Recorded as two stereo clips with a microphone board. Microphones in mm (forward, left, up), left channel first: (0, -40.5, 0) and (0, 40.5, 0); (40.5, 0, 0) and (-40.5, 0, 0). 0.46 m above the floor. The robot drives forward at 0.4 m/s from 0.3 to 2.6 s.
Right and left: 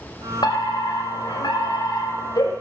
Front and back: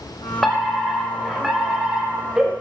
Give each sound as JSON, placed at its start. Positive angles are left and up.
{"t": 0.4, "sound": "a fire alarm", "azimuth_deg": -85, "distance_m": 3.5}